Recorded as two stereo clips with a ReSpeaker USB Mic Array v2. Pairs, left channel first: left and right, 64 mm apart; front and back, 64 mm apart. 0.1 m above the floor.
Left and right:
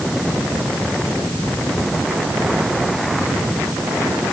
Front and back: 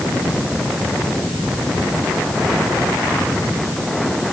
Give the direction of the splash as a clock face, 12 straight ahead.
No splash in this recording.